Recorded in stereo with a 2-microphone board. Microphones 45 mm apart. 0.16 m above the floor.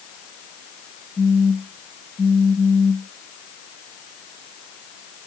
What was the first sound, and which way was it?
A phone buzzing, 25° right (ahead or behind).